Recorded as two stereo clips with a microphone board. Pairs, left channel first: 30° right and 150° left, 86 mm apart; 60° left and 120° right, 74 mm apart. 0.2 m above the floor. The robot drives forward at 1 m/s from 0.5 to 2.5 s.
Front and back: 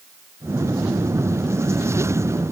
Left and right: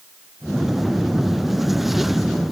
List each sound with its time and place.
Only background noise.